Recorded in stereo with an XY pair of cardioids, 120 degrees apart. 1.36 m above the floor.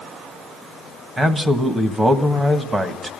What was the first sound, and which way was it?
A man speaking, 20° right.